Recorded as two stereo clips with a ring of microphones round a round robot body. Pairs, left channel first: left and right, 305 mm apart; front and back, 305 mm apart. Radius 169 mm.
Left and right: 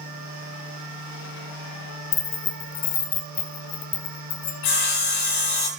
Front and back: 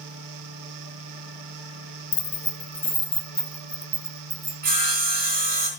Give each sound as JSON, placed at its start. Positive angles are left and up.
{"t": 2.1, "sound": "keys jangling", "azimuth_deg": 40, "distance_m": 0.8}
{"t": 4.6, "sound": "sawing", "azimuth_deg": 115, "distance_m": 3.5}